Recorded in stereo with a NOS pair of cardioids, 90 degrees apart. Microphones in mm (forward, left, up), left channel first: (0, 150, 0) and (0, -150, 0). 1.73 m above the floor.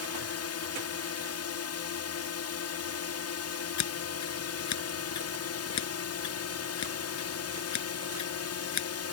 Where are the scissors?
70° left.